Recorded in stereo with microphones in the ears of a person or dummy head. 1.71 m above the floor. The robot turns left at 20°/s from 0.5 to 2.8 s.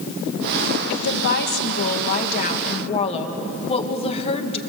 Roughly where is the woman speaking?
Left.